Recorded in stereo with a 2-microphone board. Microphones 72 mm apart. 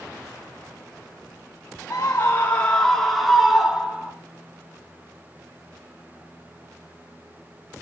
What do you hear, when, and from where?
1.9 s a scream: 40° left (ahead or behind), 1.6 m; by 4.1 s 15° right (ahead or behind), 2.5 m